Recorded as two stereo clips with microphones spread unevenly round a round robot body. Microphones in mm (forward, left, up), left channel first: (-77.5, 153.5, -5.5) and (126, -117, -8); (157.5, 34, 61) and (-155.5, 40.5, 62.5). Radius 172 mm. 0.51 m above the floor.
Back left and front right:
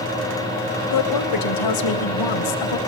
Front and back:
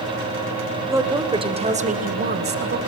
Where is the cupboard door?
No cupboard door in this recording.